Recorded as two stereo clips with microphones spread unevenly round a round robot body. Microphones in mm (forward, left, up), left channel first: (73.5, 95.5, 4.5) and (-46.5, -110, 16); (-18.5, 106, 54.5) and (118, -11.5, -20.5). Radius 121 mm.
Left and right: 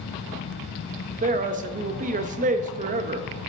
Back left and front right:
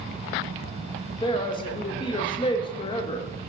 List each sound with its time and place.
1.2 s a man speaking: 140° right, 0.8 m